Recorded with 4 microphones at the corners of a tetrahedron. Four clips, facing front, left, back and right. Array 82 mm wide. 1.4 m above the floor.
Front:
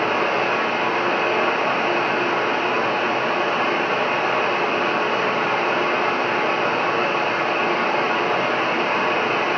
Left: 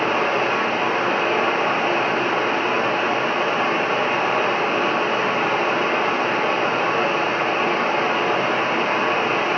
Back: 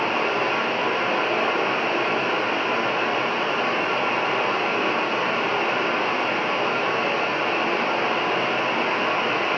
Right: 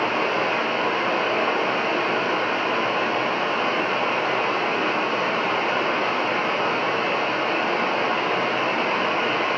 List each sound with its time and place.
0.0 s running water: 55° left, 1.9 m